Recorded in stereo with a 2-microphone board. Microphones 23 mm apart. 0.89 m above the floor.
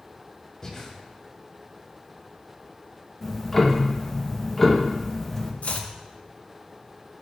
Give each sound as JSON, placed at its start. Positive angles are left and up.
{"t": 0.6, "sound": "breathing", "side_deg": 25, "distance_m": 1.1}
{"t": 3.2, "sound": "ticking", "side_deg": 15, "distance_m": 1.0}
{"t": 5.6, "sound": "chopping", "side_deg": 75, "distance_m": 0.6}